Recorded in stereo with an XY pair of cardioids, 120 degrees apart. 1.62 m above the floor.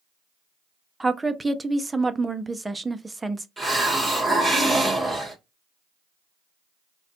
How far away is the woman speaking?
About 0.5 m.